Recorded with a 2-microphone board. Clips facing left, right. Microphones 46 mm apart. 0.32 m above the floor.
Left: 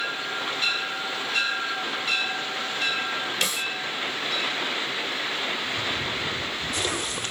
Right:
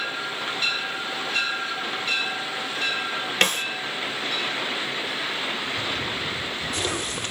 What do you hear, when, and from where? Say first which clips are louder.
3.4 s a snare drum: right 9 dB; 55° right (ahead or behind), 0.6 m